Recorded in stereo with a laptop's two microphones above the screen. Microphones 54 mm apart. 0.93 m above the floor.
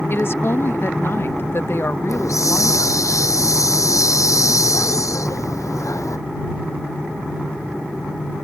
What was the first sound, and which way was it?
A woman speaking, 45° left (ahead or behind).